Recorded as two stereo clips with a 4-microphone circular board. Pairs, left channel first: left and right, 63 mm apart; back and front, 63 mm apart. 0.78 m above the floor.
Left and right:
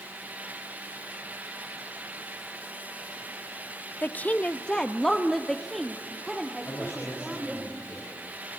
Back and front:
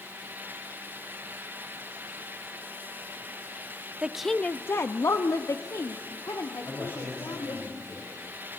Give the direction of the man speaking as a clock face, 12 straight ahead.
7 o'clock.